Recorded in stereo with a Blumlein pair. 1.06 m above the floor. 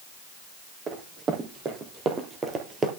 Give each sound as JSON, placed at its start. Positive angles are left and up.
{"t": 0.9, "sound": "running footsteps", "azimuth_deg": -25, "distance_m": 3.0}